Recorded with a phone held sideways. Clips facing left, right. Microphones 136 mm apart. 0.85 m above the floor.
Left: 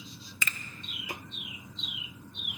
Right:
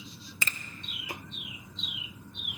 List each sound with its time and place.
0.4 s a finger snap: 30° right (ahead or behind), 0.6 m